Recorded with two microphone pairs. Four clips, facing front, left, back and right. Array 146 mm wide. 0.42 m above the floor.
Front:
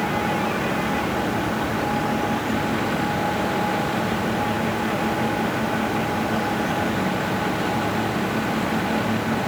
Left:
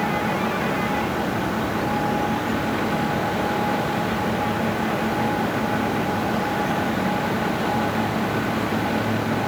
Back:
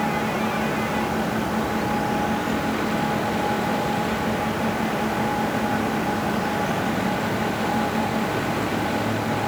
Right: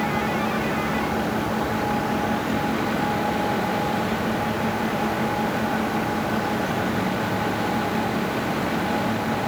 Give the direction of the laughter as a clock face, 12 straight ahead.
I don't hear laughter.